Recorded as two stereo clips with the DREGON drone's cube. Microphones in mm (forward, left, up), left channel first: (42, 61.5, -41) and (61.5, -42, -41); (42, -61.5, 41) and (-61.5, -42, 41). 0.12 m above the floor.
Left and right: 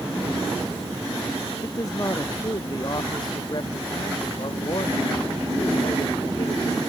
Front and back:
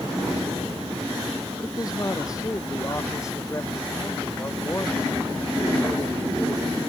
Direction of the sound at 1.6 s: 40° left.